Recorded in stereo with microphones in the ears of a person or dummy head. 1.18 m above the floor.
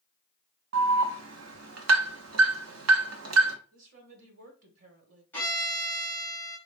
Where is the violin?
15° left (ahead or behind), 2.5 m.